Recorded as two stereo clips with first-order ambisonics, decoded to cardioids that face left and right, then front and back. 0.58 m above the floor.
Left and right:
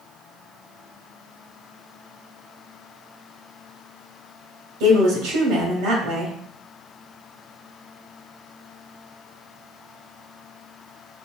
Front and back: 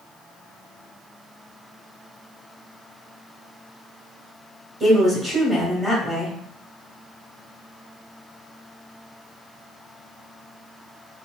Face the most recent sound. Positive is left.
turn(degrees=-100)